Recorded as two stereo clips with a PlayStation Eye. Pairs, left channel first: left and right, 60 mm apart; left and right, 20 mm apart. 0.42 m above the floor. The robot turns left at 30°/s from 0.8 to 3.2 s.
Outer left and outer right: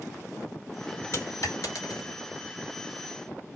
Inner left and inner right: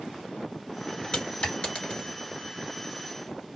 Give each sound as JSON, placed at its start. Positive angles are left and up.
{"t": 1.1, "sound": "a dropped coin", "side_deg": 50, "distance_m": 1.5}